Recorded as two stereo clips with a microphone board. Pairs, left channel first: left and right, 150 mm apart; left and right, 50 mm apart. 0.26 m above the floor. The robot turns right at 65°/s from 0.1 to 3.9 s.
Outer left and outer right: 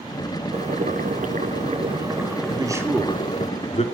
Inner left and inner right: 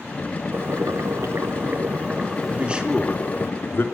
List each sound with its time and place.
0.5 s boiling: 130° right, 1.4 m; by 3.5 s 65° left, 1.4 m
2.5 s a man speaking: 35° right (ahead or behind), 2.5 m; by 3.8 s 45° left (ahead or behind), 2.5 m